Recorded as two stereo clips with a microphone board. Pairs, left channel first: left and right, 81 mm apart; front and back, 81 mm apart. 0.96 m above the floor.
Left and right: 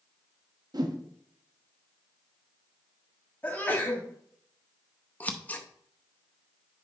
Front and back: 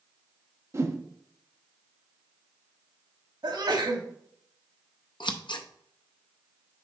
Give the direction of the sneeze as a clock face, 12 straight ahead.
7 o'clock.